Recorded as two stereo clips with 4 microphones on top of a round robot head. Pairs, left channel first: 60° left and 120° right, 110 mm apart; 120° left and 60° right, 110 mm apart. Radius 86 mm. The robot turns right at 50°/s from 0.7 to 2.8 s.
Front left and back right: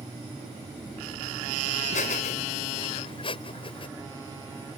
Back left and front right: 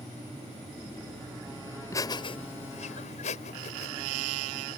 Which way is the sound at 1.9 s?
55° left.